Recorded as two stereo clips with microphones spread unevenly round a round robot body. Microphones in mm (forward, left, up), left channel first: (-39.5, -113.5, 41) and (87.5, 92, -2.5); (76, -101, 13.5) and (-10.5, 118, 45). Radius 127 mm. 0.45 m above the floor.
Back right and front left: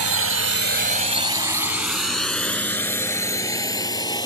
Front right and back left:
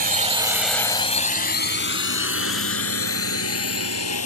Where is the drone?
60° left; by 4.3 s 50° right.